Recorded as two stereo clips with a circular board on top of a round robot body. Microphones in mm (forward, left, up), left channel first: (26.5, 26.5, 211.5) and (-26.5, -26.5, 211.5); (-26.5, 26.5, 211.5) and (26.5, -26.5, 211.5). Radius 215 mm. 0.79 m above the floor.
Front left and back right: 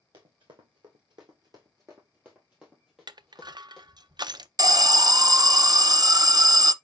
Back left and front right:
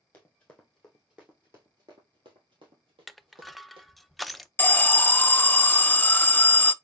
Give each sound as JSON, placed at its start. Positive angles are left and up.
{"t": 0.1, "sound": "running footsteps", "azimuth_deg": -160, "distance_m": 1.2}
{"t": 3.1, "sound": "crushing", "azimuth_deg": -135, "distance_m": 0.6}
{"t": 4.6, "sound": "an alarm", "azimuth_deg": -165, "distance_m": 0.6}